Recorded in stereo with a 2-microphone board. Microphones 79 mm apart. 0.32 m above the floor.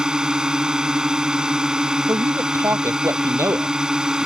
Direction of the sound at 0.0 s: 10° right (ahead or behind).